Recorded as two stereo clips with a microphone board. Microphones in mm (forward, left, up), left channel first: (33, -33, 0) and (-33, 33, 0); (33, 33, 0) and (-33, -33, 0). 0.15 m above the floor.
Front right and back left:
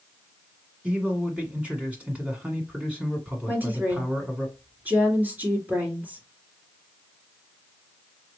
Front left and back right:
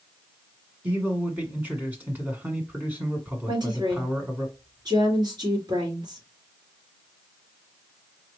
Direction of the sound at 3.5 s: 155° right.